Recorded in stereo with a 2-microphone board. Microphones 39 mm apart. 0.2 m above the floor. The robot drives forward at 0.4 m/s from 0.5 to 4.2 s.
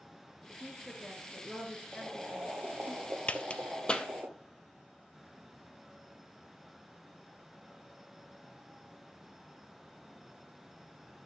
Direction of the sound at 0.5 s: 10° left (ahead or behind).